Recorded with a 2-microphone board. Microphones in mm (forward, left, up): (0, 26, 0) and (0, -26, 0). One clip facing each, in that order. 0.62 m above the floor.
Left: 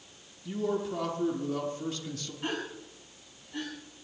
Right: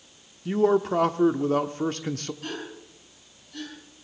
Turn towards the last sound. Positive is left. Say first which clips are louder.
# left 1 dB
turn(degrees=20)  # may be behind; listen again after turning